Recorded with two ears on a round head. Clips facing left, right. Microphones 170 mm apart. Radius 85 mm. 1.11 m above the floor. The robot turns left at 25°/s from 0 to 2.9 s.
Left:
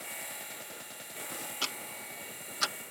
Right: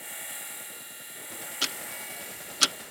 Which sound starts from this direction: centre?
Ticking, at 1.6 s.